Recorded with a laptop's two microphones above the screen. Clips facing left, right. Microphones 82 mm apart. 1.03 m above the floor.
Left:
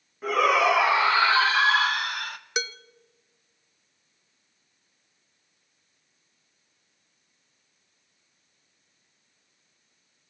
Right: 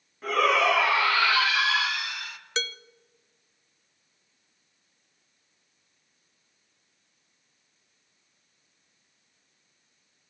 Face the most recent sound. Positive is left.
turn(degrees=15)  # may be behind; listen again after turning